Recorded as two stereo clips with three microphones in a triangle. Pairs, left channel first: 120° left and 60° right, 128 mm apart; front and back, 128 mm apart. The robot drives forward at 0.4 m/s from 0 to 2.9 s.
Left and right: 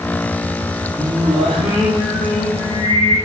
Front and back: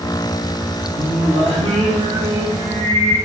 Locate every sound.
1.0 s singing: 155° right, 3 m; by 3.2 s 160° right, 4 m